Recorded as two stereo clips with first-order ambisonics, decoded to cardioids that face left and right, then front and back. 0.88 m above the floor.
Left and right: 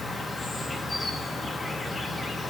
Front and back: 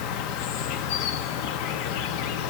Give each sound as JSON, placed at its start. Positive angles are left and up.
{"t": 0.0, "sound": "an insect", "azimuth_deg": 15, "distance_m": 0.8}